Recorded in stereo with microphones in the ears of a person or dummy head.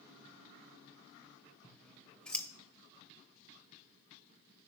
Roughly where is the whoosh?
I don't hear a whoosh.